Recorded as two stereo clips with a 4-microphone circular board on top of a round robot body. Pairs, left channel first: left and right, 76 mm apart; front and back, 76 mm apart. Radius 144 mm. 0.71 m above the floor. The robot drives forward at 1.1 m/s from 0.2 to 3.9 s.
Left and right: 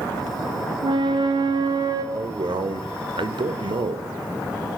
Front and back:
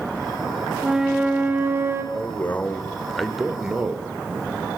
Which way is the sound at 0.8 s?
95° right.